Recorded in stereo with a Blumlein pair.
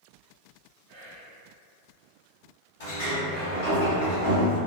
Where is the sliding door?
50° left, 1.2 m.